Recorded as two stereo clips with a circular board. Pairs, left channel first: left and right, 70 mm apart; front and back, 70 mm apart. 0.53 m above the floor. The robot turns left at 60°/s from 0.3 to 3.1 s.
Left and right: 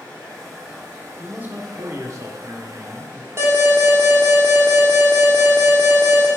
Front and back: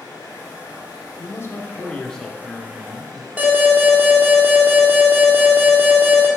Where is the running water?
15° left, 3.5 m; by 6.4 s 150° right, 3.5 m.